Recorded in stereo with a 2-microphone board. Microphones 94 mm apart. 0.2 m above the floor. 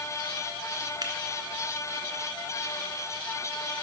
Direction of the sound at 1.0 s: 50° right (ahead or behind).